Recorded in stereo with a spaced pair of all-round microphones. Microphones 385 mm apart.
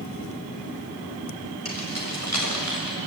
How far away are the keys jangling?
About 6 m.